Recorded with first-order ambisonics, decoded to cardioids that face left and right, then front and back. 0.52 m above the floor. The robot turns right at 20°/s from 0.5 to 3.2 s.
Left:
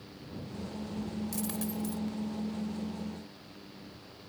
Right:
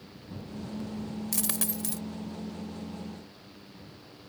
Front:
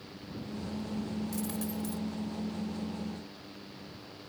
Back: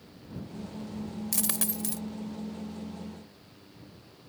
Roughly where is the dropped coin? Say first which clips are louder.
Right 6 dB, back 4 dB; behind right.